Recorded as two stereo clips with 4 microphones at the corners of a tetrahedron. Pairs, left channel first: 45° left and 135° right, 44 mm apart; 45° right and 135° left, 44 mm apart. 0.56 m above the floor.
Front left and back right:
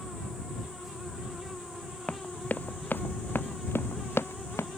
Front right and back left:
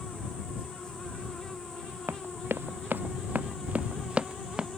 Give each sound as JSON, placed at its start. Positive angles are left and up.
{"t": 2.1, "sound": "running footsteps", "azimuth_deg": 105}